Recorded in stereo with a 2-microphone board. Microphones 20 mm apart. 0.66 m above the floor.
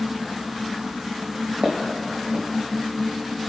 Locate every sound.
1.6 s footsteps: 75° right (ahead or behind), 2.5 m